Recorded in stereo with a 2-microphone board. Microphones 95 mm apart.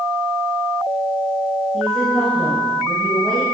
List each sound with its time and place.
1.7 s a woman speaking: 5° left (ahead or behind), 2 m